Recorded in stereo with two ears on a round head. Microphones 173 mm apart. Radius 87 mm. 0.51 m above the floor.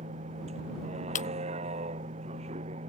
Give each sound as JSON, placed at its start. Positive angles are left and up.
{"t": 0.0, "sound": "a vehicle", "side_deg": -30}
{"t": 1.1, "sound": "breaking glass", "side_deg": 40}